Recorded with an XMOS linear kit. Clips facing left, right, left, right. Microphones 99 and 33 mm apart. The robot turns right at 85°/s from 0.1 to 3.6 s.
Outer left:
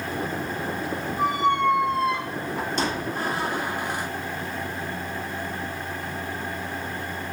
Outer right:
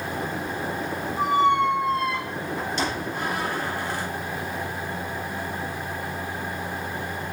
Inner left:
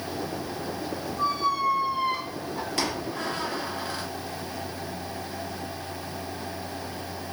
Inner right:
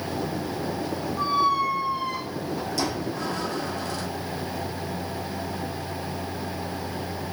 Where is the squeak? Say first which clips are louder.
Outer right 2 dB, inner right 3 dB; 35° right (ahead or behind), 1.1 m; by 4.1 s 20° left (ahead or behind), 1.1 m.